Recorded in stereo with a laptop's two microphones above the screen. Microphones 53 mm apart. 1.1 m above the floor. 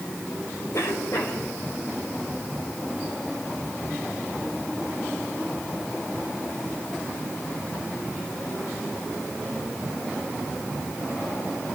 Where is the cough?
60° left (ahead or behind), 4.5 m.